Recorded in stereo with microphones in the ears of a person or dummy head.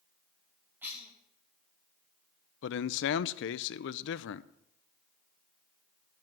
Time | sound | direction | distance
0.8 | a cough | 15° right (ahead or behind) | 2 m
2.6 | a man speaking | 70° left (ahead or behind) | 0.6 m